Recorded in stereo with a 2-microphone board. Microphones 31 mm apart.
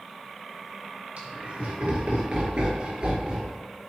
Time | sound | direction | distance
1.2 | laughter | 40° right (ahead or behind) | 4.5 m